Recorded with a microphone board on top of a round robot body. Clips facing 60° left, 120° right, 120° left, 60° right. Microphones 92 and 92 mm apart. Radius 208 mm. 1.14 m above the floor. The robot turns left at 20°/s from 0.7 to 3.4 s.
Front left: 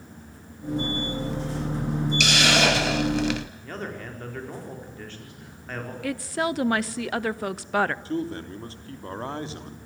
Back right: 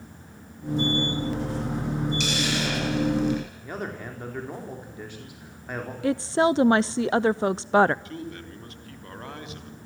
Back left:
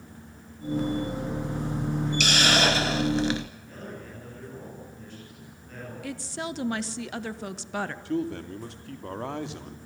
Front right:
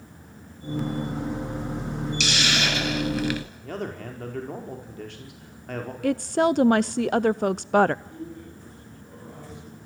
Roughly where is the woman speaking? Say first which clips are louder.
Back right 6 dB, front right 14 dB; ahead right.